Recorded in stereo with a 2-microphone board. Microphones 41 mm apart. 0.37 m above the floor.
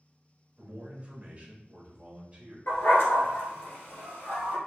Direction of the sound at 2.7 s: 80° left.